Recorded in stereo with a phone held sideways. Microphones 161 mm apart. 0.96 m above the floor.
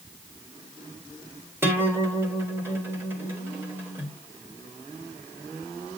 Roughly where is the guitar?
Centre.